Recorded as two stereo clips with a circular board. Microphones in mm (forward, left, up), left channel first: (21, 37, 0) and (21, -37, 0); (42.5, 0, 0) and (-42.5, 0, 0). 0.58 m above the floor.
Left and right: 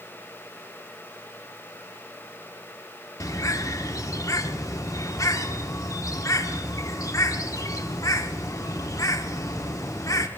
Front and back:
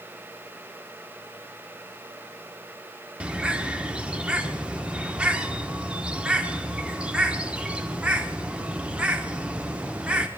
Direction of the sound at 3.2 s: 105° left.